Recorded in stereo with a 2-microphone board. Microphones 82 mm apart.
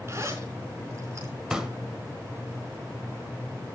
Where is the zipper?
35° right (ahead or behind), 4.5 m.